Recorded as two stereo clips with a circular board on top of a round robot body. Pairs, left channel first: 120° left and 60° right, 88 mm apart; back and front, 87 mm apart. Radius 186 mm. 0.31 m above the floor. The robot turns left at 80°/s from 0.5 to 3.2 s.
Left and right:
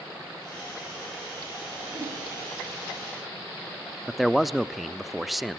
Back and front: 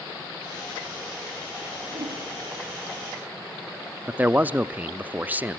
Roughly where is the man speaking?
Ahead left.